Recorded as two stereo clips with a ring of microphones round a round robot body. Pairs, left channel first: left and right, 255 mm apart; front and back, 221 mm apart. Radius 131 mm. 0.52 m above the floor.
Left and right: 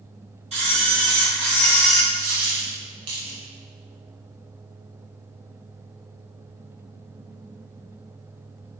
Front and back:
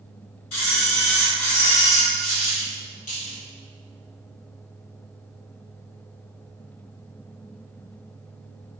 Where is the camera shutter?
25° right, 1.7 m.